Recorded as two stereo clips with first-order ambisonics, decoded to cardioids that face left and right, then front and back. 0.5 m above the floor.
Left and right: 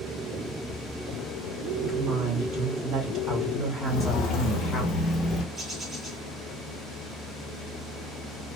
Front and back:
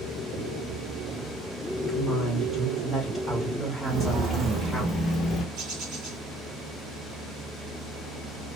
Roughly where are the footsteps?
Behind left.